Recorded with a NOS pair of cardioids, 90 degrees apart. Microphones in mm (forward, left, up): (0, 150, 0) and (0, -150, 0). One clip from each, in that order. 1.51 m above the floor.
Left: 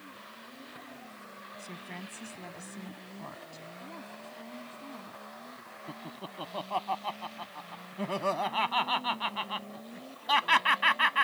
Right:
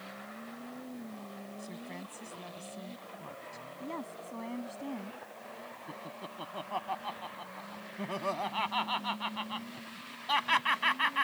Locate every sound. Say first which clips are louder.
1.6 s a woman speaking: left 3 dB; 25° left
3.8 s a woman speaking: right 7 dB; 55° right
5.9 s laughter: left 2 dB; 30° left